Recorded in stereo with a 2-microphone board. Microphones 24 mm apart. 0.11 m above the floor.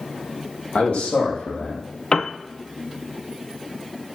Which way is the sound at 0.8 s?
70° left (ahead or behind).